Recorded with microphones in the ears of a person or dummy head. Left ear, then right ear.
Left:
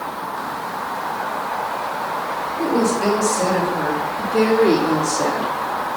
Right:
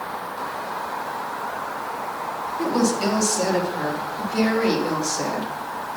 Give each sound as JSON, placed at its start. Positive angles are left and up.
{"t": 2.6, "sound": "a woman speaking", "side_deg": -70, "distance_m": 3.0}